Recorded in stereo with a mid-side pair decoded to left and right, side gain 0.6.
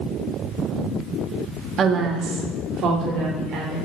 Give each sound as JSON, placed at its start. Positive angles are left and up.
{"t": 1.8, "sound": "a woman speaking", "azimuth_deg": -45, "distance_m": 1.7}